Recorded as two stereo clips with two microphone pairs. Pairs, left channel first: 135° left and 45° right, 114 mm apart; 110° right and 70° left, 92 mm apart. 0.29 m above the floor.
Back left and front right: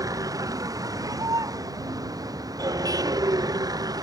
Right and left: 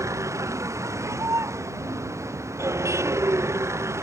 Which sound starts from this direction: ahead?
A vehicle, at 0.0 s.